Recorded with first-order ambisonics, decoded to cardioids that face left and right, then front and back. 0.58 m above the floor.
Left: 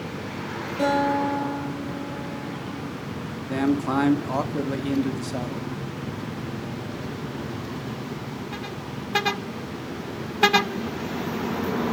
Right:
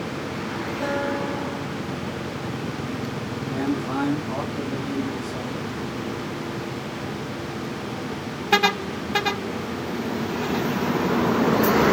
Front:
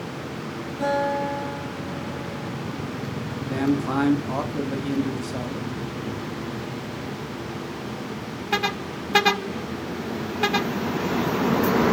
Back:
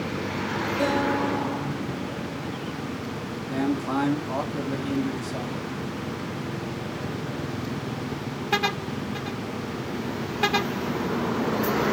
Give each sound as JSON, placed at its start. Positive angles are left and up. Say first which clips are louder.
{"t": 0.8, "sound": "a guitar", "louder": "left 5 dB, front 2 dB", "azimuth_deg": 115, "distance_m": 7.0}
{"t": 3.5, "sound": "a man speaking", "louder": "left 3 dB, front 2 dB", "azimuth_deg": 75, "distance_m": 1.2}